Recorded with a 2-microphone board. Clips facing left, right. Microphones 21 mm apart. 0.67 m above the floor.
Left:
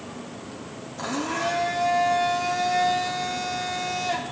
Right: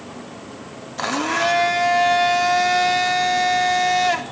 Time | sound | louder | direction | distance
1.0 | a blender | right 7 dB | 50° right (ahead or behind) | 0.6 m